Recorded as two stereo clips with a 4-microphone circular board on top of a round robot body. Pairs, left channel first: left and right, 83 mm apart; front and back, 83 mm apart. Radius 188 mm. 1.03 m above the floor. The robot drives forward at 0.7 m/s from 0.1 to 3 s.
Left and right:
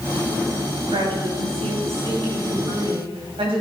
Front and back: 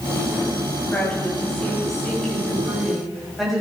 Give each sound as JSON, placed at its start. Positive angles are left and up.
{"t": 0.9, "sound": "a woman speaking", "azimuth_deg": -80, "distance_m": 6.5}